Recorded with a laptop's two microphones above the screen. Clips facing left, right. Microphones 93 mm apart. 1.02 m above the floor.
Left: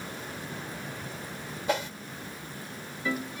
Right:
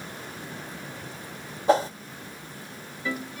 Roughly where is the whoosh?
Right.